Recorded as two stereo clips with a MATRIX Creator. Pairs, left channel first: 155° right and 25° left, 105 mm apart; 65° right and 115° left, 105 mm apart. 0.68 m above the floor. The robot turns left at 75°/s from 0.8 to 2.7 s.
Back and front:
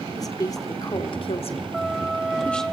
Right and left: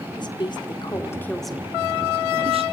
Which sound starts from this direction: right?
A woman speaking, at 0.2 s.